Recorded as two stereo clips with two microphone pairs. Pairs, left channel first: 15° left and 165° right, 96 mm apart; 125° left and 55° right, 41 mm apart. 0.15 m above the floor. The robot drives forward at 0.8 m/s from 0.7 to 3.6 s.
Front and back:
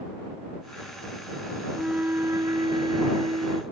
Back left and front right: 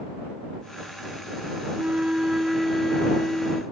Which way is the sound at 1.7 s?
85° right.